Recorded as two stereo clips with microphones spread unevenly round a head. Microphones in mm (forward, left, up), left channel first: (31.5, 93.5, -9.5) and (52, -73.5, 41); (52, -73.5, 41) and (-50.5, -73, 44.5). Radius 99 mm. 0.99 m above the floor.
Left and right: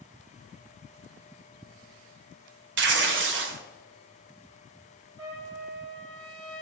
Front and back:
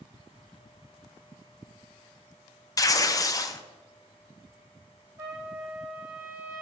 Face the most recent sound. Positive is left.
turn(degrees=-115)